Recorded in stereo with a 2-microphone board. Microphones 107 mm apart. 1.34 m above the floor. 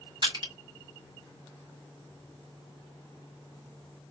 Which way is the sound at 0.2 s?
45° right (ahead or behind).